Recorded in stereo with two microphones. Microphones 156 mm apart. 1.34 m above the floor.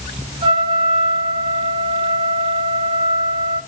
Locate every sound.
0.4 s a trumpet: 30° right (ahead or behind), 3.5 m